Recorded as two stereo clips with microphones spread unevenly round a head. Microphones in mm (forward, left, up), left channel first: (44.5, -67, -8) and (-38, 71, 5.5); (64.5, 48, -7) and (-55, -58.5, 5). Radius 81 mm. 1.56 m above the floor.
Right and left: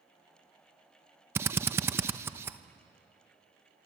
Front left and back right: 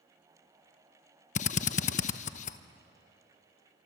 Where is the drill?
60° left, 0.8 m.